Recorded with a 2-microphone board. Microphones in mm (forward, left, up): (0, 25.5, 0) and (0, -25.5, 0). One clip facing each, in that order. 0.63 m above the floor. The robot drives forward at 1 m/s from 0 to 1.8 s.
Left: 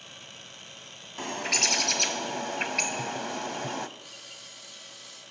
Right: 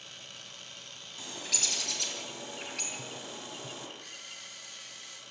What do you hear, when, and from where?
1.2 s a bird: 50° left (ahead or behind), 2 m; by 3.9 s 65° left (ahead or behind), 1.7 m
4.0 s a camera shutter: 55° right (ahead or behind), 9.5 m